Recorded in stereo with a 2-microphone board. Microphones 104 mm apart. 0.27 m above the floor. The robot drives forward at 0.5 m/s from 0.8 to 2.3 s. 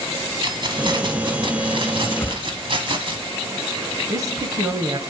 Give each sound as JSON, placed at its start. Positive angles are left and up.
{"t": 0.4, "sound": "keys jangling", "side_deg": -50, "distance_m": 1.4}
{"t": 2.2, "sound": "a whoosh", "side_deg": 25, "distance_m": 0.9}
{"t": 4.1, "sound": "a woman speaking", "side_deg": -35, "distance_m": 1.1}